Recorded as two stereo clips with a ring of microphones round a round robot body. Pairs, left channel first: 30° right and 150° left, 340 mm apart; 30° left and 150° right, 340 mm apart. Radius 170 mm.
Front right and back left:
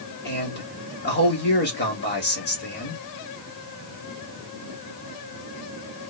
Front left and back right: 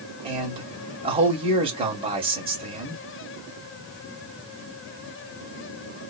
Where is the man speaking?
80° right, 1.7 m.